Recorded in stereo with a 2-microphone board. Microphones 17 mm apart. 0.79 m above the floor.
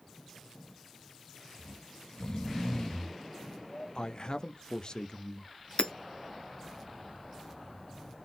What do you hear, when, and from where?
1.6 s snoring: 40° left (ahead or behind), 0.7 m
4.0 s a man speaking: 45° left (ahead or behind), 0.5 m
5.8 s hammering: 85° left, 0.6 m